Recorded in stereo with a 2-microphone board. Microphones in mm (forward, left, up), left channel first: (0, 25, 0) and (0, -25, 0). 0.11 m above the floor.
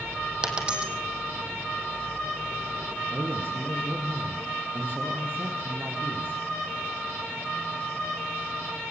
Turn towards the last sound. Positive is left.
turn(degrees=-45)  # may be behind; listen again after turning